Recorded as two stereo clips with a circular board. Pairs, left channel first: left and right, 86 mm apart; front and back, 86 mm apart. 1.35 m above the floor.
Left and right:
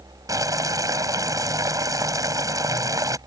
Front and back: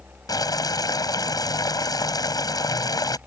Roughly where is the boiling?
Ahead right.